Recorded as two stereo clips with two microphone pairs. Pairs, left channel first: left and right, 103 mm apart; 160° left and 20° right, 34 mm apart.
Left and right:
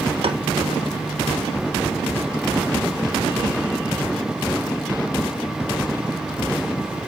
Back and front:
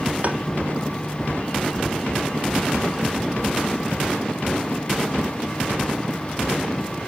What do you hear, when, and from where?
0.2 s tapping: 65° right, 0.9 m